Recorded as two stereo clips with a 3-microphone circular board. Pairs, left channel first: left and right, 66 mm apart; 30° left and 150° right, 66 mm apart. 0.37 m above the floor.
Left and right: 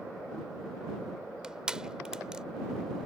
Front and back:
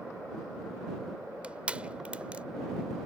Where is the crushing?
140° right.